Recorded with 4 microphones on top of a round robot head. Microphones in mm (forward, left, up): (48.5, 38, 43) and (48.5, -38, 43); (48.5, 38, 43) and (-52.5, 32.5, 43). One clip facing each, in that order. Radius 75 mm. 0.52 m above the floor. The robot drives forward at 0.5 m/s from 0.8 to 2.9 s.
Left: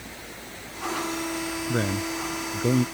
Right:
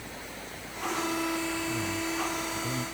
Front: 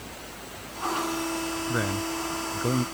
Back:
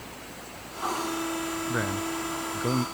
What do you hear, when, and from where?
1.7 s a man speaking: 90° left; by 2.9 s 95° left